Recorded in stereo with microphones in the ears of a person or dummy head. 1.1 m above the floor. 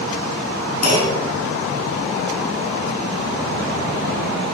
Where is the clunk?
50° left (ahead or behind), 4 m.